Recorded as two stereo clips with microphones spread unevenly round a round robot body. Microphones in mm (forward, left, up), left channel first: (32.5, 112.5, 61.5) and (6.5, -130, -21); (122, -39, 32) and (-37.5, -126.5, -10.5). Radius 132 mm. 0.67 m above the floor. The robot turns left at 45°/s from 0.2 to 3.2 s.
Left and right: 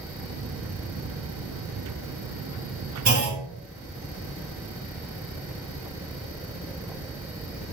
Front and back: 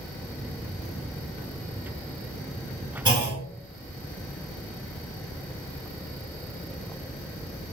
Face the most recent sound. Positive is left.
turn(degrees=-110)